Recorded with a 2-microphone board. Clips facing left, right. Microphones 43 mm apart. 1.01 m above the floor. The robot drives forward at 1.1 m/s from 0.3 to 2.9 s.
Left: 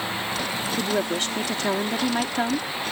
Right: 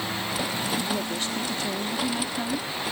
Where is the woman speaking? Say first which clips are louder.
Left 4 dB; 70° left (ahead or behind); by 2.7 s 60° left (ahead or behind).